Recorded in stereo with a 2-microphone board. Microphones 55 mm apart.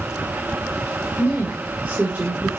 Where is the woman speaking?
30° right (ahead or behind), 3 m.